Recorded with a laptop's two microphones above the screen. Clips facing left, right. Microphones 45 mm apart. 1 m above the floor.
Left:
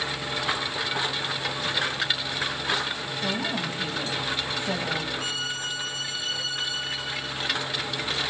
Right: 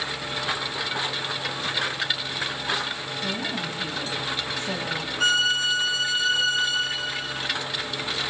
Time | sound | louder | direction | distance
3.2 | a woman speaking | left 1 dB | 15° left (ahead or behind) | 5 m
5.2 | a violin | right 9 dB | 80° right | 1.3 m